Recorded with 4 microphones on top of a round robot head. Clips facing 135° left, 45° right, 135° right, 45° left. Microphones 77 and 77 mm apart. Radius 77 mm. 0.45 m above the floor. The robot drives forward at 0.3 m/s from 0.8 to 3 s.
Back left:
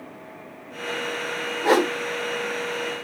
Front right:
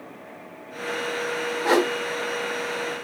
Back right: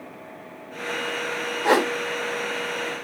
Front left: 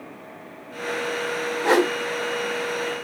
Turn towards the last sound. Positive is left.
turn(degrees=165)